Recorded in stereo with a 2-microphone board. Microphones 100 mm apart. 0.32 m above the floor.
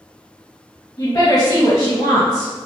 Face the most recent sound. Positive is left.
turn(degrees=40)  # may be behind; listen again after turning